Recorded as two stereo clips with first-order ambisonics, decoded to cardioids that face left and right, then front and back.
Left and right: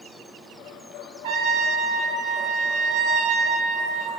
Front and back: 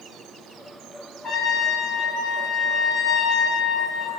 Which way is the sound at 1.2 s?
80° right.